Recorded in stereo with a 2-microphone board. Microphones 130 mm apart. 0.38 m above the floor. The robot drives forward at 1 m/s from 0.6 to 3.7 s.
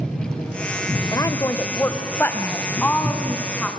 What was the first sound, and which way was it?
A woman speaking, 30° left (ahead or behind).